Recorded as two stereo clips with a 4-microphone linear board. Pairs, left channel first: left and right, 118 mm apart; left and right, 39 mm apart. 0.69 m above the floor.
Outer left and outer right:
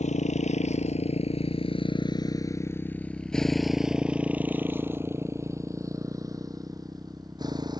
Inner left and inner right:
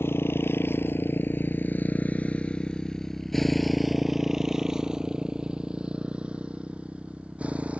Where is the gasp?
I don't hear a gasp.